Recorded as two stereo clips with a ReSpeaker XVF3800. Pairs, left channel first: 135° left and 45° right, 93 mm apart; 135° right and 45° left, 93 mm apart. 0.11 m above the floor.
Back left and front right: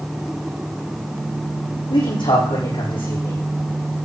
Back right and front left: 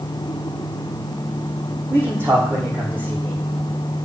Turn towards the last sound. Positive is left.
turn(degrees=110)